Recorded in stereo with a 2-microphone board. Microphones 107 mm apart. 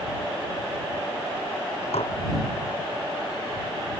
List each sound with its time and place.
1.9 s dishes clattering: 85° left